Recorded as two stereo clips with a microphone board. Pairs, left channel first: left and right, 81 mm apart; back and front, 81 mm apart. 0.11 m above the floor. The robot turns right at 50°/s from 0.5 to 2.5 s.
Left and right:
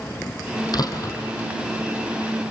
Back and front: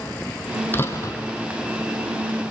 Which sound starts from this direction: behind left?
A door slam, at 0.7 s.